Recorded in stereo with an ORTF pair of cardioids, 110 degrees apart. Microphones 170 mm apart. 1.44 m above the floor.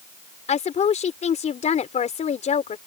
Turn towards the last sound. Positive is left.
turn(degrees=40)